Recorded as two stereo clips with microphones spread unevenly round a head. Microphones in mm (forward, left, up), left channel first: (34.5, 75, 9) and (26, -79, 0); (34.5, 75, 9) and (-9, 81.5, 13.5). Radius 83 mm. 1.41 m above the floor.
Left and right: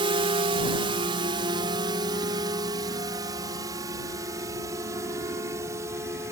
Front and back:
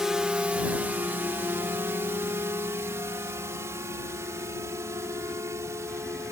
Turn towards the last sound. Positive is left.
turn(degrees=-170)